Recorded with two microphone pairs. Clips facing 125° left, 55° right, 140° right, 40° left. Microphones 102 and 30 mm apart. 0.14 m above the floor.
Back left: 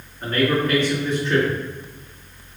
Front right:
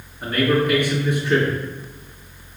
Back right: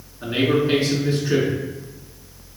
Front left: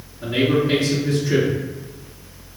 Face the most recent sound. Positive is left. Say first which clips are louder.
# front right 1 dB, front left 1 dB
turn(degrees=-125)